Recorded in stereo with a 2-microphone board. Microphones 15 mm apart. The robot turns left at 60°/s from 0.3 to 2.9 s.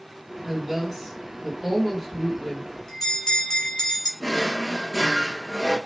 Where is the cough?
I don't hear a cough.